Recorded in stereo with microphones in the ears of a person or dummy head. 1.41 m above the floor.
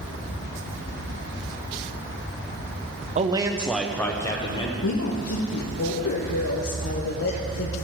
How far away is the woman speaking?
About 1.2 m.